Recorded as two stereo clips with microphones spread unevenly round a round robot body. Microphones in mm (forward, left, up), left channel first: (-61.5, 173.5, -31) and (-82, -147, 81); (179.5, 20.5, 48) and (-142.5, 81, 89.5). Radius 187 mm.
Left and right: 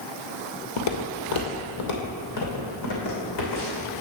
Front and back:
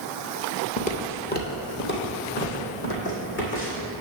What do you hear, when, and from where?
0.8 s footsteps: 60° left, 0.9 m; by 3.9 s 45° left, 3 m